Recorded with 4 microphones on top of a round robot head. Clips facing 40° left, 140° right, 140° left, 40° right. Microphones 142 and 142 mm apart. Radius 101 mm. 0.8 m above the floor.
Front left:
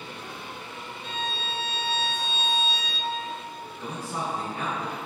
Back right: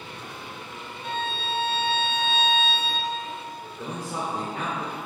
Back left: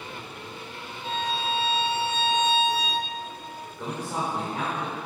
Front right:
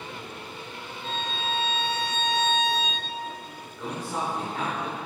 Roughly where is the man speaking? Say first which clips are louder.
Back right 1 dB, even; behind right.